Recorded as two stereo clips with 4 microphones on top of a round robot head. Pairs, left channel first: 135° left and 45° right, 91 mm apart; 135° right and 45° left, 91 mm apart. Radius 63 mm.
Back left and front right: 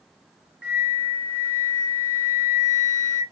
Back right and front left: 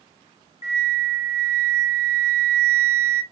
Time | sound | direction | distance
0.6 | a flute | 120° right | 1.2 m